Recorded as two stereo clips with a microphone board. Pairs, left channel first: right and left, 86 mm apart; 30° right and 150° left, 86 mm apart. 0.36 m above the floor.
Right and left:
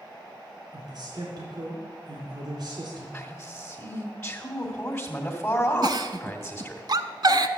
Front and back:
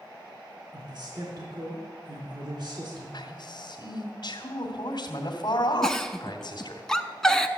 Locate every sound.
0.7 s a man speaking: 125° left, 3.5 m
3.1 s a man speaking: 30° right, 1.9 m
5.8 s a giggle: 55° left, 0.7 m